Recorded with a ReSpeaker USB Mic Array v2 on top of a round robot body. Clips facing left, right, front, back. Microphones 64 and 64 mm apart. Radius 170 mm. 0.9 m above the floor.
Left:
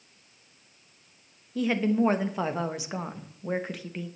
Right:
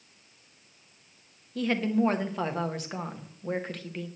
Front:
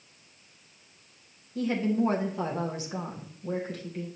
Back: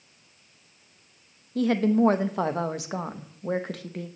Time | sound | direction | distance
1.6 | a woman speaking | 175° left | 1.3 m